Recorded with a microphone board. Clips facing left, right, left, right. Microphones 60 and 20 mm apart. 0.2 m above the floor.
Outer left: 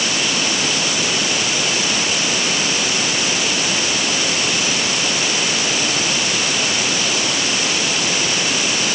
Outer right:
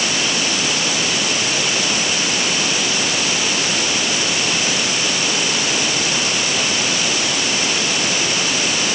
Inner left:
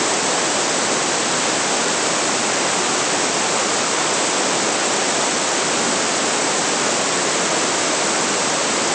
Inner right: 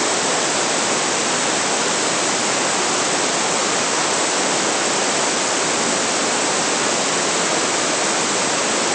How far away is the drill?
No drill in this recording.